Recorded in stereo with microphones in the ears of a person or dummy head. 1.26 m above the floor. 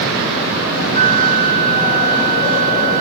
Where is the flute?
45° right (ahead or behind).